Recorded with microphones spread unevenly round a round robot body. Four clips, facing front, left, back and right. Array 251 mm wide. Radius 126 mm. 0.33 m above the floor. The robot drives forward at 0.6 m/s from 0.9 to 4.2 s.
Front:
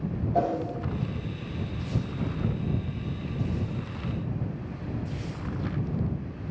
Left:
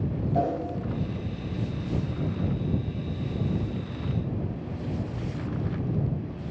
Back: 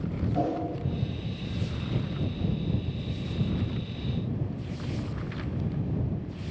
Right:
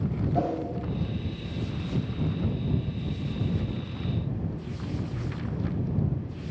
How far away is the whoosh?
About 2.5 m.